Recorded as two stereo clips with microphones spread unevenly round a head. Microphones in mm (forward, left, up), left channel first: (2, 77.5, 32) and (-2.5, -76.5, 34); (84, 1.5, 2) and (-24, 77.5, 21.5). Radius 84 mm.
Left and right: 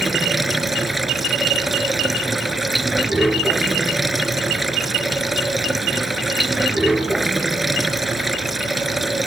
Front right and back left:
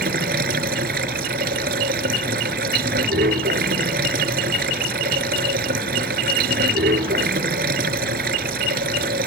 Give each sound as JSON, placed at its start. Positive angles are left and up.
{"t": 0.0, "sound": "running water", "azimuth_deg": 180}